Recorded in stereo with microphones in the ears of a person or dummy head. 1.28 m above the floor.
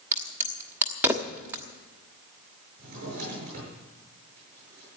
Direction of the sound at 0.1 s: 15° right (ahead or behind).